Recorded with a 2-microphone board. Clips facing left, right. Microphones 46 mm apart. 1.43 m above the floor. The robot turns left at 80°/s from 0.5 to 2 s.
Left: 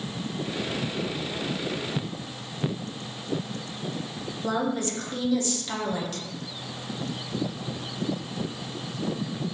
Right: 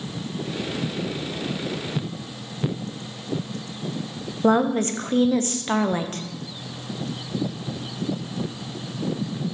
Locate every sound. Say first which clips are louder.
4.4 s a woman speaking: right 8 dB; 40° right (ahead or behind), 0.7 m